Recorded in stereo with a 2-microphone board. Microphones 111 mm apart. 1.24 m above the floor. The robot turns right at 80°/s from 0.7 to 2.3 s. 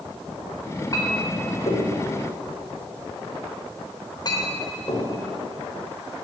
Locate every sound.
0.9 s a clink: 30° left (ahead or behind), 3.5 m; by 5.2 s 40° left (ahead or behind), 3.5 m